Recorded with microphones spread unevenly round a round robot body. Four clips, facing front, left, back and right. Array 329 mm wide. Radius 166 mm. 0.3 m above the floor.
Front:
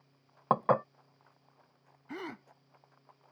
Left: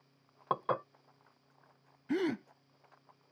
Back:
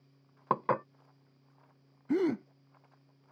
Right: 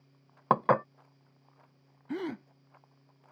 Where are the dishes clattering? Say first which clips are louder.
Right 8 dB, front 3 dB; 55° right.